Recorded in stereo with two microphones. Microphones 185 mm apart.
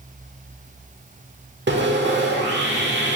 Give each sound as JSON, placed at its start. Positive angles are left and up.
{"t": 1.7, "sound": "sawing", "side_deg": -75, "distance_m": 1.4}